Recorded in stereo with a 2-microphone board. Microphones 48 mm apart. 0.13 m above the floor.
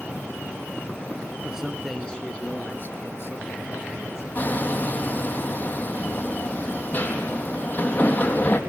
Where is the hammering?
35° left (ahead or behind), 4 m.